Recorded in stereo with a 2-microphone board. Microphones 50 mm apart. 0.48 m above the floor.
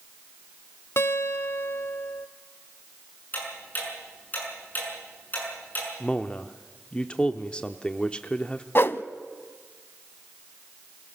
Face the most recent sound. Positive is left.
turn(degrees=50)  # may be behind; listen again after turning